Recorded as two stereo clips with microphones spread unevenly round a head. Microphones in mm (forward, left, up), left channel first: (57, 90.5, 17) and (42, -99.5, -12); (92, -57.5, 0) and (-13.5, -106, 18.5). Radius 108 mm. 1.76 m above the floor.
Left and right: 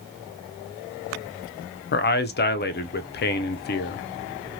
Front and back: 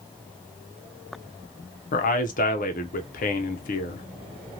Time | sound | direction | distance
1.9 | a man speaking | 50° left | 0.5 m